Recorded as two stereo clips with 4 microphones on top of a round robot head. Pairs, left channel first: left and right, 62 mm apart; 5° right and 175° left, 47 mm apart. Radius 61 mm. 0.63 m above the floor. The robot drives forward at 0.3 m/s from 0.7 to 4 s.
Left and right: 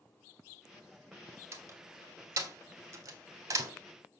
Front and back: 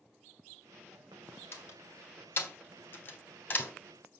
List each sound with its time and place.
1.5 s a door slam: 45° right, 2 m; by 3.7 s 65° right, 1.9 m